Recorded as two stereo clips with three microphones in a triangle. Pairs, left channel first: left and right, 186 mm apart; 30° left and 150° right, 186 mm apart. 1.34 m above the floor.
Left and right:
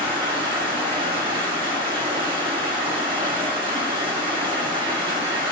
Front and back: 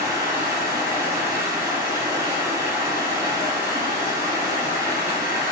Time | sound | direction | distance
0.0 | running water | 90° right | 0.7 m